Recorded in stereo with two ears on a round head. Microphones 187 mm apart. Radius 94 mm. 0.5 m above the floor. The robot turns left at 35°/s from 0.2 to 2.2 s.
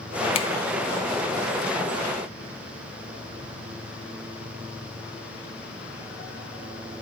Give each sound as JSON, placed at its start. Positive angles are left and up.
{"t": 0.3, "sound": "a finger snap", "side_deg": 30, "distance_m": 0.7}